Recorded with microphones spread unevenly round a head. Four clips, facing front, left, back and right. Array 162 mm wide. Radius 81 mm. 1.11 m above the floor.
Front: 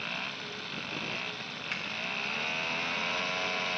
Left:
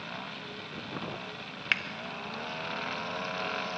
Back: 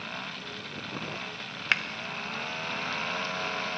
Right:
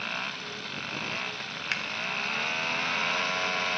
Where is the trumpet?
I don't hear a trumpet.